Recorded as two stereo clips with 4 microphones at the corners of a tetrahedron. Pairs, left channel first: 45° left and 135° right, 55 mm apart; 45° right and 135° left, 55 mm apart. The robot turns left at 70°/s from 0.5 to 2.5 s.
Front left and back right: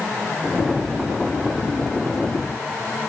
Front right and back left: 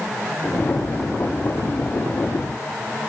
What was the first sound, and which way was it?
Only background noise.